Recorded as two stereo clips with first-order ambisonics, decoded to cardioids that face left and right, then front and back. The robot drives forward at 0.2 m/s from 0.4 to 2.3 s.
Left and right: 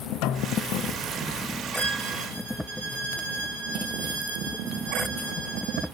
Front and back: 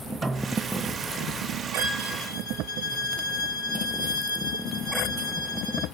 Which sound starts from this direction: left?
A snare drum, at 0.2 s.